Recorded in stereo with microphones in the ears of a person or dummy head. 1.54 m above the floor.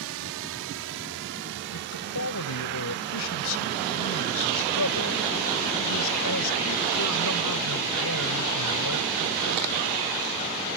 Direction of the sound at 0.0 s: 75° right (ahead or behind).